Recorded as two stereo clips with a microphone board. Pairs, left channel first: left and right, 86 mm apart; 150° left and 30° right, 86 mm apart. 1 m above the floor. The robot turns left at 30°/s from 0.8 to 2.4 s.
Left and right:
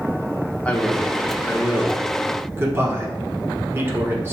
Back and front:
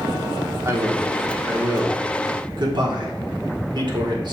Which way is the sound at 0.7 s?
15° left.